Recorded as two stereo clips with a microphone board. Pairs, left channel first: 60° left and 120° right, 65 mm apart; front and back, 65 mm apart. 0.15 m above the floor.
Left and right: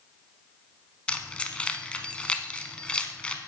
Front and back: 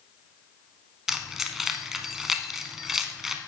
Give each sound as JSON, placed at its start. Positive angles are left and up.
{"t": 1.1, "sound": "keys jangling", "azimuth_deg": 105, "distance_m": 0.8}